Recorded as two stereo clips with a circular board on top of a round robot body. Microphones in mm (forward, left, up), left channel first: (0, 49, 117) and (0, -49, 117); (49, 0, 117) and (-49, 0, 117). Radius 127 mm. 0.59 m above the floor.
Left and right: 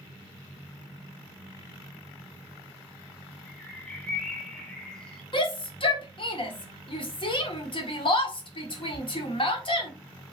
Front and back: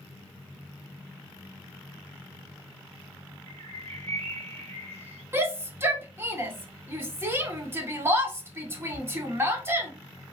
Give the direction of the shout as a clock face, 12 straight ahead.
8 o'clock.